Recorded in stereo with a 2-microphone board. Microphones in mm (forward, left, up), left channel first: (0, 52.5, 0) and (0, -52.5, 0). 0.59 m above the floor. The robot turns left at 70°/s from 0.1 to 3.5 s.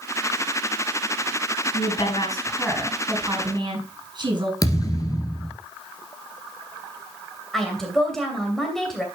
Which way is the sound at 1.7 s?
80° left.